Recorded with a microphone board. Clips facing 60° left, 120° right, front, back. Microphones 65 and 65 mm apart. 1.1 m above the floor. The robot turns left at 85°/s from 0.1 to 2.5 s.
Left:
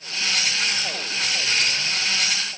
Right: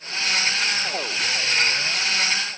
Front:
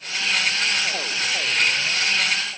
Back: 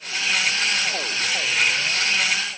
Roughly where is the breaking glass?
No breaking glass in this recording.